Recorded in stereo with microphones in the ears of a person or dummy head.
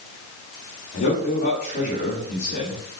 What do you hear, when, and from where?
0.9 s a man speaking: 50° left (ahead or behind), 2.5 m